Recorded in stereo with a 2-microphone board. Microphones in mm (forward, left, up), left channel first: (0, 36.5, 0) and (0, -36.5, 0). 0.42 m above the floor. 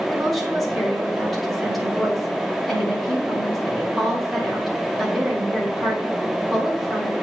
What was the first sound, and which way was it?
A woman speaking, centre (ahead or behind).